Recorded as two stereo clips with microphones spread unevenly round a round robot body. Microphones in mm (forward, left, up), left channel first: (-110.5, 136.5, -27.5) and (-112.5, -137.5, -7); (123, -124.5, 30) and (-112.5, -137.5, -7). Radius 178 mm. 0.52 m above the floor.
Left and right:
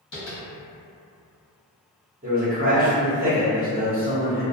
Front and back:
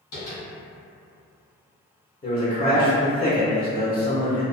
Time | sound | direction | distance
0.1 | tapping | 40° left | 1.2 m
2.2 | a man speaking | 55° right | 0.8 m